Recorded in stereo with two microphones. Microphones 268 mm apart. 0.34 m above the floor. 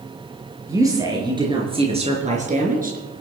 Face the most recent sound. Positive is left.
turn(degrees=-35)  # may be behind; listen again after turning